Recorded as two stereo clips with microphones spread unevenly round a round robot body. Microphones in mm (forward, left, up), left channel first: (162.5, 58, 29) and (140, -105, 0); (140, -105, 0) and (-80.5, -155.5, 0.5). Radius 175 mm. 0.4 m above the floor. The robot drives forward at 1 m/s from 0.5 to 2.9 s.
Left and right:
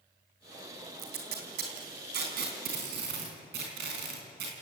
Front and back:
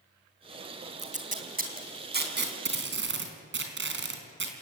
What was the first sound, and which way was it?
Tape being pulled, 110° right.